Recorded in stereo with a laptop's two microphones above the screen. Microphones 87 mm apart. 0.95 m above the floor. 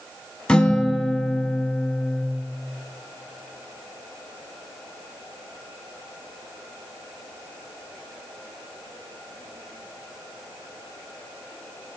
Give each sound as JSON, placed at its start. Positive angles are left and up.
{"t": 0.5, "sound": "a guitar", "side_deg": 10, "distance_m": 0.5}